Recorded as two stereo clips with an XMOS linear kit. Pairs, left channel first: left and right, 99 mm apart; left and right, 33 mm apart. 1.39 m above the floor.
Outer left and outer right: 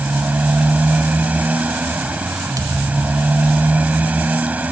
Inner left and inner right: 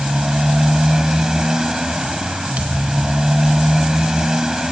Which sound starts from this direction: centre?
A motorcycle, at 0.0 s.